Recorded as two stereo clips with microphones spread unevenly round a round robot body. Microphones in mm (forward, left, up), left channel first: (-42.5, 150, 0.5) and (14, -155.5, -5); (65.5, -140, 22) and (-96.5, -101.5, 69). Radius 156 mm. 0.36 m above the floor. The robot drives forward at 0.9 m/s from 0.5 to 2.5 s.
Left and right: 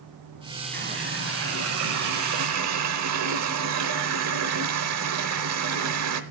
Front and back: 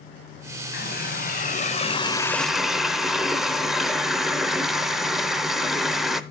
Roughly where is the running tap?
Ahead right.